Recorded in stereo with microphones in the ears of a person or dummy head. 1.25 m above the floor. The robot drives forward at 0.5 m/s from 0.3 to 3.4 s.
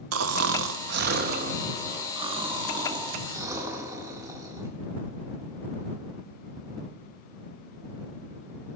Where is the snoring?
80° right, 0.6 m; by 4.8 s 20° right (ahead or behind), 1.6 m.